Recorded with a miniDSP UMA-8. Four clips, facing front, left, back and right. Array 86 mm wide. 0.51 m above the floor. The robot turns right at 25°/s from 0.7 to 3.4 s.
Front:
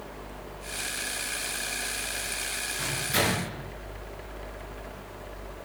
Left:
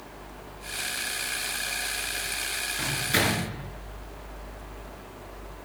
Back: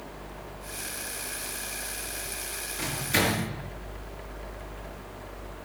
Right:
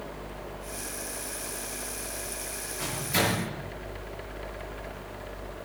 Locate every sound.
2.8 s a microwave: 85° left, 5 m; by 3.5 s 105° left, 5 m